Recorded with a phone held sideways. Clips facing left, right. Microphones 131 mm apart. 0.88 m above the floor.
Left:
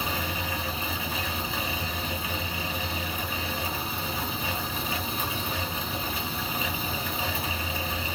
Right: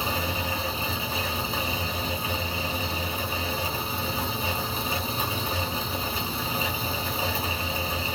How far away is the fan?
About 0.9 m.